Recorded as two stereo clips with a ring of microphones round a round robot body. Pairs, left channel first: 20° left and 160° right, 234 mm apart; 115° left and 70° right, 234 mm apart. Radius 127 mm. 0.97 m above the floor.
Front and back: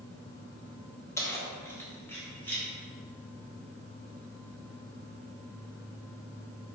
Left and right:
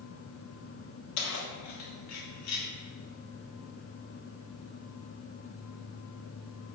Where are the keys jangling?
100° left, 1.5 m; by 2.7 s 105° left, 3 m.